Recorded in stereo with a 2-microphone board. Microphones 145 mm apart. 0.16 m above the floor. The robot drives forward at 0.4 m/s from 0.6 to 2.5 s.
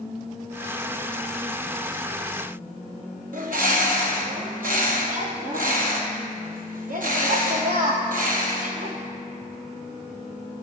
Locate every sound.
3.3 s a bird: 80° right, 0.8 m